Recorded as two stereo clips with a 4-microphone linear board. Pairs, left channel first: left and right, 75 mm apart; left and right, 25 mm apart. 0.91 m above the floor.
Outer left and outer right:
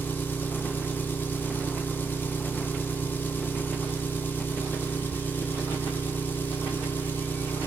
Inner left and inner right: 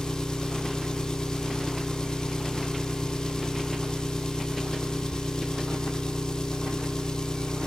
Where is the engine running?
25° left (ahead or behind), 1.2 m.